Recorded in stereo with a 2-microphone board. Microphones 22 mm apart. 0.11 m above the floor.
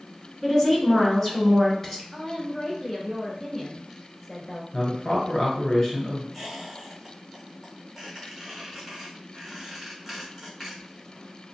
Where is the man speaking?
30° left (ahead or behind), 1.3 m.